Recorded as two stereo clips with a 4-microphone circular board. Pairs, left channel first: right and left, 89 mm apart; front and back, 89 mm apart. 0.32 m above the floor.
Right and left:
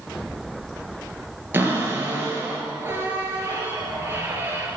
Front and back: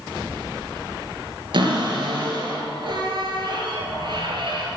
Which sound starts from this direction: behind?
A cupboard door, at 1.5 s.